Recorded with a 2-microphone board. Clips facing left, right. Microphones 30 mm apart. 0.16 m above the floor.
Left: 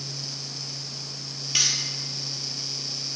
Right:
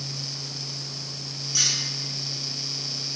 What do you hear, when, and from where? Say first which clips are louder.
1.6 s cutlery clinking: left 1 dB; 65° left (ahead or behind), 2 m